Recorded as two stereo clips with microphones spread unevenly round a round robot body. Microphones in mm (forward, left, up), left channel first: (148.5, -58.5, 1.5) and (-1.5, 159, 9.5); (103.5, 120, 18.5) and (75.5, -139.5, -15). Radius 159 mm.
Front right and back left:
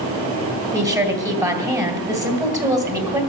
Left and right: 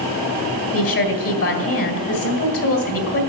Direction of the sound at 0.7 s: 50° left.